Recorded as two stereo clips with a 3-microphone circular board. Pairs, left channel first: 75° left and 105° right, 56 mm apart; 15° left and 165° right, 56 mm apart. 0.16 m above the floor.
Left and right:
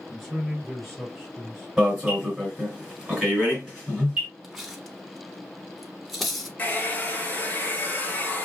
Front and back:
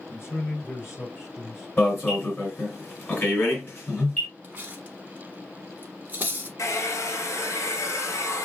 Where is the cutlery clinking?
165° left, 1.0 m.